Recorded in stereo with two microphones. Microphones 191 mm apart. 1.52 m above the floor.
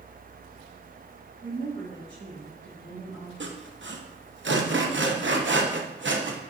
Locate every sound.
1.4 s a woman speaking: 70° right (ahead or behind), 2.5 m; by 3.3 s 85° right, 4.5 m
3.4 s sawing: 75° right (ahead or behind), 0.7 m